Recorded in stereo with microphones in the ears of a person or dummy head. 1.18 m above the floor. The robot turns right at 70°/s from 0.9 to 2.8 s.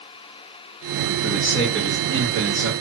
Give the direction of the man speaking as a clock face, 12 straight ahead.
7 o'clock.